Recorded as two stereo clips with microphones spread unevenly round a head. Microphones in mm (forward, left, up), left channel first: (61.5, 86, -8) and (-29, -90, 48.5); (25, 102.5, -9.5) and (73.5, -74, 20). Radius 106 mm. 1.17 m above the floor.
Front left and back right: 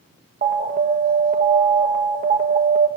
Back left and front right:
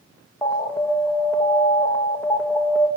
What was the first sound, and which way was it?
An alarm, 175° right.